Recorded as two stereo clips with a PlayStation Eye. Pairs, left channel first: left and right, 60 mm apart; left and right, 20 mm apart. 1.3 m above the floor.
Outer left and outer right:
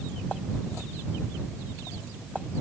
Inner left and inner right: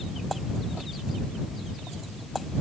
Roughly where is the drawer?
I don't hear a drawer.